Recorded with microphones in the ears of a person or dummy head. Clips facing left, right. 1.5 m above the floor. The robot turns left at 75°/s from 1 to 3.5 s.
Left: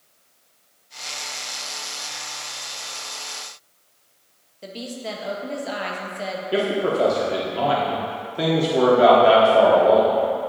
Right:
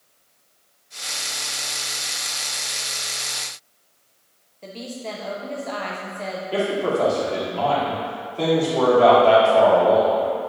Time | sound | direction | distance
4.6 | a woman speaking | 10° left (ahead or behind) | 0.8 m
6.5 | a man speaking | 20° left (ahead or behind) | 1.2 m